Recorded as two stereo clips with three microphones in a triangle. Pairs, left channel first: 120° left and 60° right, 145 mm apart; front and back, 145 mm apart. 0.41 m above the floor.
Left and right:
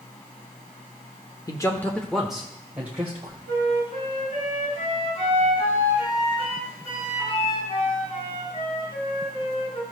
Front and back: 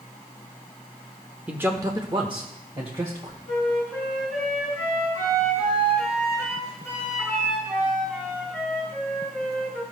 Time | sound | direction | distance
1.5 | a man speaking | 110° left | 0.8 m
3.5 | a flute | 95° left | 5 m